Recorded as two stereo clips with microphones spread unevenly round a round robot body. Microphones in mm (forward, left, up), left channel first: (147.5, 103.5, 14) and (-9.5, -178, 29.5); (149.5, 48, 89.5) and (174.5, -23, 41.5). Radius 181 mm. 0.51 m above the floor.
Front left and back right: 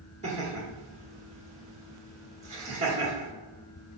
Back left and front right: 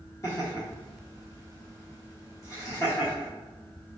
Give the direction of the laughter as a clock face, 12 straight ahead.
6 o'clock.